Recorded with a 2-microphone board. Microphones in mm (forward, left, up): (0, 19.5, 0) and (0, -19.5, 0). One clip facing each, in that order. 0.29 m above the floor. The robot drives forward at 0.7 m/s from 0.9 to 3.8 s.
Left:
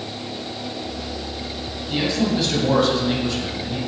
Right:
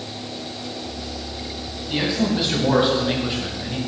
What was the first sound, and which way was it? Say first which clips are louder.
A man speaking: even; 10° right (ahead or behind).